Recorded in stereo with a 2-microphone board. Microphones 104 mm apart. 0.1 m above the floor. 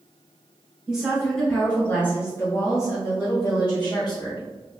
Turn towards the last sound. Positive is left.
turn(degrees=50)  # may be behind; listen again after turning